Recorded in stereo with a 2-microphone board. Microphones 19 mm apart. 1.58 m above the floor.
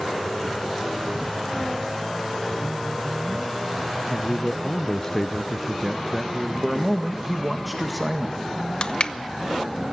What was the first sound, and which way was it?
A man speaking, 35° left (ahead or behind).